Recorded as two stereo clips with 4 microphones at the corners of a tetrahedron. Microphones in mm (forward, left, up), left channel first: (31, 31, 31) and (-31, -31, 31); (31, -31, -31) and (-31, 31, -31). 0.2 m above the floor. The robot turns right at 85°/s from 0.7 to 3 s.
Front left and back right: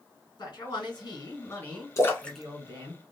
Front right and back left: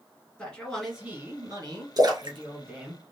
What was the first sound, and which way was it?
A man speaking, 30° left.